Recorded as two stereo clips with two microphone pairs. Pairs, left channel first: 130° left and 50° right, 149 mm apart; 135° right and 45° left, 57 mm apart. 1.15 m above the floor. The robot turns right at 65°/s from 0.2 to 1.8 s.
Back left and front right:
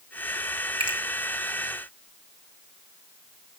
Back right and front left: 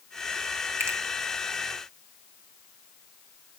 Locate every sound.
0.8 s a finger snap: 5° left, 1.9 m; by 1.0 s 15° left, 1.9 m